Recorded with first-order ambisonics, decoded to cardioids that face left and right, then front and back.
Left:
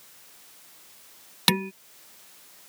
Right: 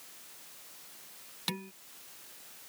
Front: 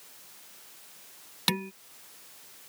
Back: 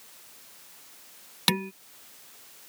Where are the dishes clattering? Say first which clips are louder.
Left 14 dB, back 3 dB; 105° left.